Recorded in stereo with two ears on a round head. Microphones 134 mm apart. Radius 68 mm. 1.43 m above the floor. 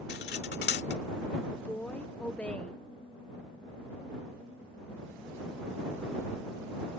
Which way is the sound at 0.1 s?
80° left.